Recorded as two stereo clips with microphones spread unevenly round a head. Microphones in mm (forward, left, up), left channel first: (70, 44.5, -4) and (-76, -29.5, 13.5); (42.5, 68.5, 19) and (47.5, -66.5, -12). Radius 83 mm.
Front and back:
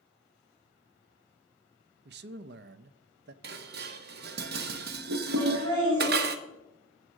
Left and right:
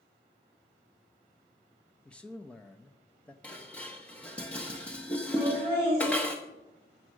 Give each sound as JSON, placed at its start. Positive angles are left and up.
{"t": 2.0, "sound": "a man speaking", "azimuth_deg": 180, "distance_m": 0.6}
{"t": 3.4, "sound": "dishes clattering", "azimuth_deg": 175, "distance_m": 1.0}
{"t": 5.4, "sound": "laughter", "azimuth_deg": -145, "distance_m": 8.0}